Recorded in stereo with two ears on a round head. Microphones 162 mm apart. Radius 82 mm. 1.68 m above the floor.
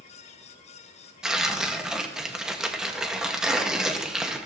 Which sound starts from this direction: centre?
Tearing paper, at 1.2 s.